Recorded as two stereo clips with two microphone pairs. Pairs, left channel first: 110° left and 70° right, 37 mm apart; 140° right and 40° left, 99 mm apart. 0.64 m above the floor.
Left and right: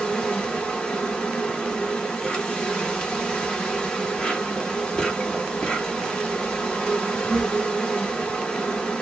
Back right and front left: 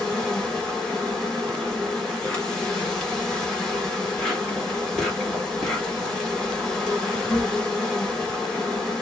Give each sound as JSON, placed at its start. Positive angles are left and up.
{"t": 0.0, "sound": "an insect", "azimuth_deg": 145, "distance_m": 1.5}